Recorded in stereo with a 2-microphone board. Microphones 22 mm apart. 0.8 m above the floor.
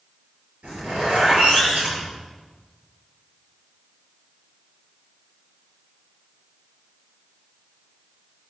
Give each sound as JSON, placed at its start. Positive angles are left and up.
{"t": 0.6, "sound": "a zipper", "side_deg": -70, "distance_m": 6.5}